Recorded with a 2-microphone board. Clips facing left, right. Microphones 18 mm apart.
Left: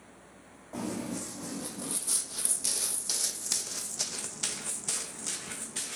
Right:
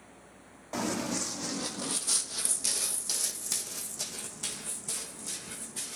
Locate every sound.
0.7 s running footsteps: 55° right (ahead or behind), 1.4 m; by 6.0 s 50° left (ahead or behind), 2.5 m